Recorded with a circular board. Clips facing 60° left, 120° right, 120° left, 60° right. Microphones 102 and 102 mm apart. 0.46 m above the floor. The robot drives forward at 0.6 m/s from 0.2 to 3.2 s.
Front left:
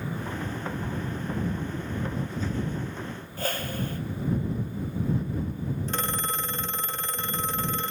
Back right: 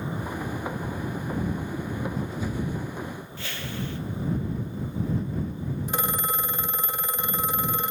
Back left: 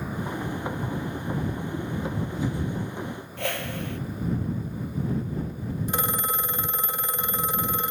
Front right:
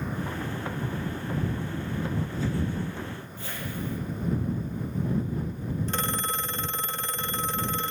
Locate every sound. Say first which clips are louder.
3.4 s a whoosh: front left 6 dB, back left 6 dB; 105° left, 1.9 m
5.9 s a phone ringing: back right 5 dB, back left 4 dB; straight behind, 0.6 m